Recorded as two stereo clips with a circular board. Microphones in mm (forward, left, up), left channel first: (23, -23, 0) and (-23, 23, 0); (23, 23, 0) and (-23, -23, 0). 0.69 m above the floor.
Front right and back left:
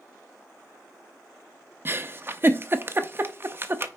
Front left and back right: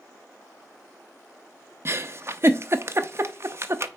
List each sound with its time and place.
1.9 s a giggle: straight behind, 0.6 m